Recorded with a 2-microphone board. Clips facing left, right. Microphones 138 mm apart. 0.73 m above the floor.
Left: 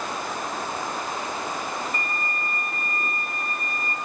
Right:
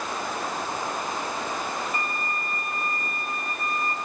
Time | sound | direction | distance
1.9 | a violin | 45° left (ahead or behind) | 4.5 m